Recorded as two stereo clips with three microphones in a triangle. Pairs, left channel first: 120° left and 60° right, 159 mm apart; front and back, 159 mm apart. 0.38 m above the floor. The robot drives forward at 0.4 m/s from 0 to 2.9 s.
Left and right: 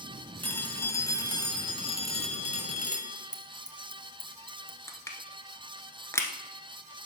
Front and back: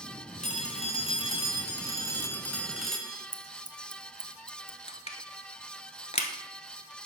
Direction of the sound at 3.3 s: 145° right.